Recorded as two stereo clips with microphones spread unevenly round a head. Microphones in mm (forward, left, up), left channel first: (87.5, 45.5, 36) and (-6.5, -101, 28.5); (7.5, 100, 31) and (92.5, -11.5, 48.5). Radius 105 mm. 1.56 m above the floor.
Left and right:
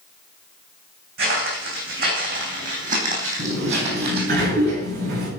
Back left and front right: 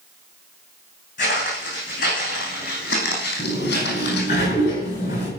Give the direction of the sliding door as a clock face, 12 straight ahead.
6 o'clock.